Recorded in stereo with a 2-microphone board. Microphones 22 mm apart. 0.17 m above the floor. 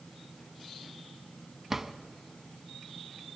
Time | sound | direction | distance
1.7 | a drawer | 15° right (ahead or behind) | 0.8 m